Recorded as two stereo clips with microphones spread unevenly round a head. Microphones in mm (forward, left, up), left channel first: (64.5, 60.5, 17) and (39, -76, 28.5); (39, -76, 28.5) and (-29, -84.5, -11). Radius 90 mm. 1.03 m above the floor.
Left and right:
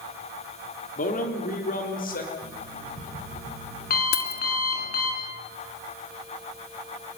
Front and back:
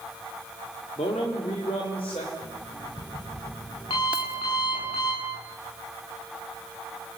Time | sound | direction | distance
1.0 | a man speaking | 55° left | 3.5 m
2.4 | an alarm clock | 60° left | 8.5 m
4.1 | keys jangling | 105° left | 1.5 m